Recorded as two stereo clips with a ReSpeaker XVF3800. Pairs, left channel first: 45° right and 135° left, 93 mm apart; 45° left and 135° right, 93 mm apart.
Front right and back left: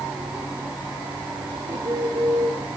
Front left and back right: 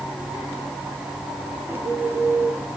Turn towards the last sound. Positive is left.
turn(degrees=165)